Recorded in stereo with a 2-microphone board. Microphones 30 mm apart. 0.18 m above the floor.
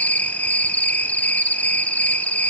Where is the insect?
70° left (ahead or behind), 0.9 m.